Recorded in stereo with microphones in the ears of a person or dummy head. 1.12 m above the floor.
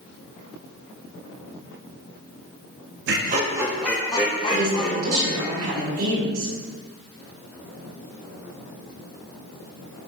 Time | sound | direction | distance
3.1 | laughter | 55° right (ahead or behind) | 0.7 m
4.5 | a man speaking | 80° right | 2.5 m